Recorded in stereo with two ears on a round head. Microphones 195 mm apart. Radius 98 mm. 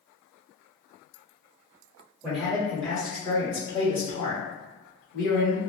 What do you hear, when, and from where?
2.2 s a man speaking: centre (ahead or behind), 1.6 m; by 5.6 s 55° left (ahead or behind), 2 m